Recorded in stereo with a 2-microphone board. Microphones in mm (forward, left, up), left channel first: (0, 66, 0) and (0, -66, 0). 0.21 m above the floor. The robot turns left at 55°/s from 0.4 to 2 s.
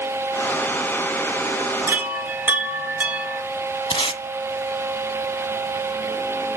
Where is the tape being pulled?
45° left (ahead or behind), 0.6 m.